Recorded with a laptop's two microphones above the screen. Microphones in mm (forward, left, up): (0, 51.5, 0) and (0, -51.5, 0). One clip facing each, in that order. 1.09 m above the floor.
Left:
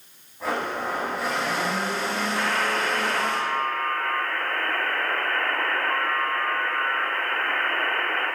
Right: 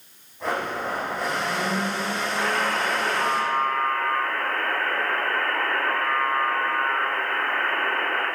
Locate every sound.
0.4 s a blender: 5° left (ahead or behind), 4.5 m
2.4 s a buzzer: 15° right (ahead or behind), 6 m